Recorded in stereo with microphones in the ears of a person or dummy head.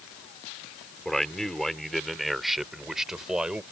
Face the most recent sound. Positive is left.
turn(degrees=-10)  # may be behind; listen again after turning